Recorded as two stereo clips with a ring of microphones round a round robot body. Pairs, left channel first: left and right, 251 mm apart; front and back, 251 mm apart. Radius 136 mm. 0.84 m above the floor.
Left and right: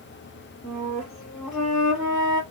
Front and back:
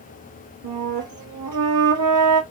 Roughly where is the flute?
Behind.